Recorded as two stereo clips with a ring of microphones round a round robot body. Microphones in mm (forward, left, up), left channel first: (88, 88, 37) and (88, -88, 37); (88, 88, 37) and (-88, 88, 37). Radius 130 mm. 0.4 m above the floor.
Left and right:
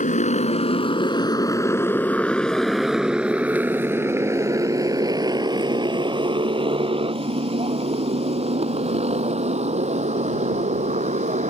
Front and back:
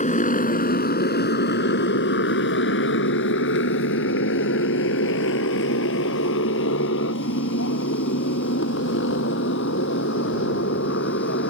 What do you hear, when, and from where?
0.0 s a motorcycle: 45° left; by 11.5 s 40° right